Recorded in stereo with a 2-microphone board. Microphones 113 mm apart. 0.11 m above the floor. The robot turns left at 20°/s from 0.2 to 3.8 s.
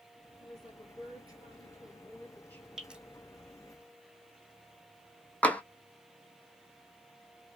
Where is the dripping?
5° right (ahead or behind), 0.8 m; by 3.0 s 10° right (ahead or behind), 0.8 m.